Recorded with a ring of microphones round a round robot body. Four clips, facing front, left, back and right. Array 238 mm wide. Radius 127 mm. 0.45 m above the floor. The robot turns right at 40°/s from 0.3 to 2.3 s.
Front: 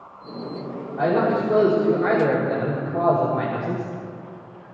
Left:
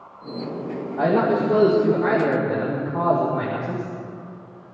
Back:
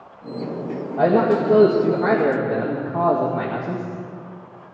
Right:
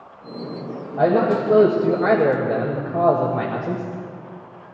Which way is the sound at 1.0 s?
135° right.